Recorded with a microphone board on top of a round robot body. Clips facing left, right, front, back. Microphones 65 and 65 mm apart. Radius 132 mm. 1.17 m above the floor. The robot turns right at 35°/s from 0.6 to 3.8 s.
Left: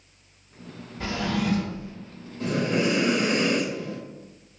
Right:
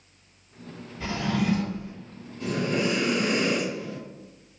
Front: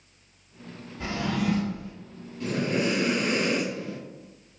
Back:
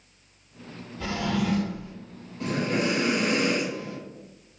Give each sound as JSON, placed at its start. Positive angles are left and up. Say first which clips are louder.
{"t": 1.0, "sound": "a drawer", "louder": "even, back 1 dB", "azimuth_deg": 75, "distance_m": 1.1}
{"t": 2.4, "sound": "breathing", "louder": "left 2 dB, even", "azimuth_deg": 145, "distance_m": 1.7}